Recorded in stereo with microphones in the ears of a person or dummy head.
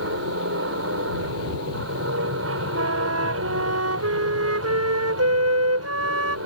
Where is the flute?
80° right.